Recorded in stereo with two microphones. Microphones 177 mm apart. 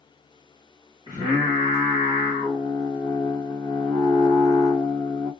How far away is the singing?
About 1.6 m.